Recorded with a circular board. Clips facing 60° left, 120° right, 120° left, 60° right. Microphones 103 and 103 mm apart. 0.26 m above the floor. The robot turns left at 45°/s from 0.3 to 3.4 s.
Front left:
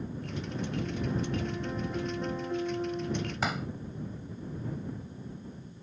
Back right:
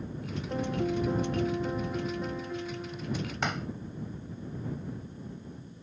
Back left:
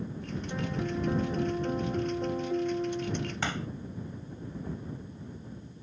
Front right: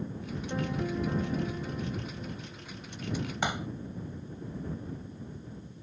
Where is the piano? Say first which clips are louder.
Back right 6 dB, front right 1 dB; 135° right; by 3.4 s 95° left.